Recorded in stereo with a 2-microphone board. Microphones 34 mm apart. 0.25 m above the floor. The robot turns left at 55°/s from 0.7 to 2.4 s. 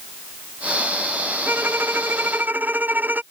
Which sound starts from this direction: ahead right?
A violin, at 1.5 s.